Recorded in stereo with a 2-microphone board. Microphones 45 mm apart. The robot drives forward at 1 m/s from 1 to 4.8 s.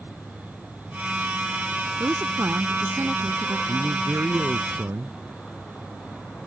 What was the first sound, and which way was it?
A woman speaking, 90° right.